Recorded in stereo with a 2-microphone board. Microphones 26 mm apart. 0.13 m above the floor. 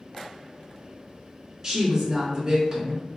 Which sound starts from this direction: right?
A woman speaking, at 1.6 s.